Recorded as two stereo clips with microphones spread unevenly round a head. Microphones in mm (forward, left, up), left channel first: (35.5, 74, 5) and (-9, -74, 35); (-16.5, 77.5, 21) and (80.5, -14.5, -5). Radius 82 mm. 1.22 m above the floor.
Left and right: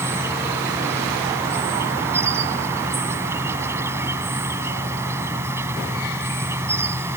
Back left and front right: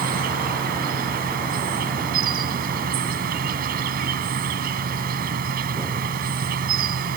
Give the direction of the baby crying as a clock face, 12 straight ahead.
No baby crying in this recording.